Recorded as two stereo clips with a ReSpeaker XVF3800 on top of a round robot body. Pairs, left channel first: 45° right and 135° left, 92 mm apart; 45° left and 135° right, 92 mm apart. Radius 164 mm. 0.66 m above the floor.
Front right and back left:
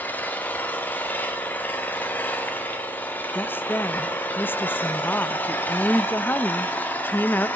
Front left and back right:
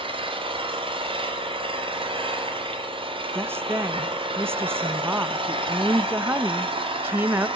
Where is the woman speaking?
95° right, 0.6 m.